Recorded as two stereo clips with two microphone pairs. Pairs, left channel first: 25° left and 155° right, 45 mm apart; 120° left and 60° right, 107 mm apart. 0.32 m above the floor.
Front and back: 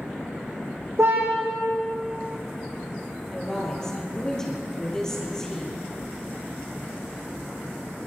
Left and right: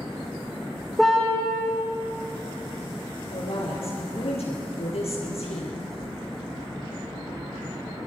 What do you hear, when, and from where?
1.0 s a car horn: 150° right, 7 m
3.3 s a woman speaking: 100° left, 7 m